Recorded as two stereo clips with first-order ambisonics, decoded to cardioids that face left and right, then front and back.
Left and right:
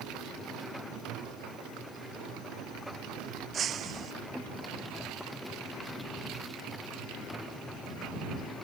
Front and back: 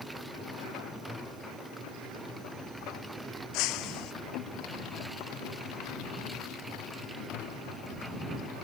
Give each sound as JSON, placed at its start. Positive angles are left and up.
{"t": 3.5, "sound": "breaking glass", "azimuth_deg": -30}